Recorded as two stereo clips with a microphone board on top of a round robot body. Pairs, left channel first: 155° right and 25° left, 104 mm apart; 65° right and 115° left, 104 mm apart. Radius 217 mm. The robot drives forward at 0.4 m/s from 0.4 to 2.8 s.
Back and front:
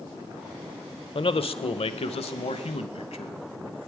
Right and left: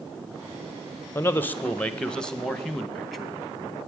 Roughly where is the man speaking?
Behind right.